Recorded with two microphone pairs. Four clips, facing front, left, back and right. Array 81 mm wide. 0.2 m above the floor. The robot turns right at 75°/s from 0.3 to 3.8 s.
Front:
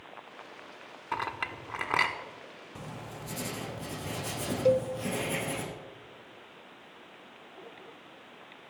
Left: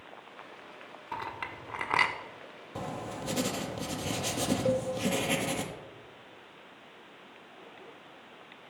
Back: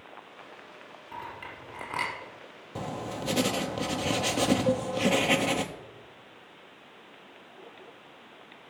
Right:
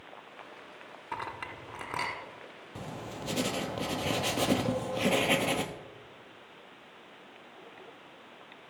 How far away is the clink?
About 1.2 m.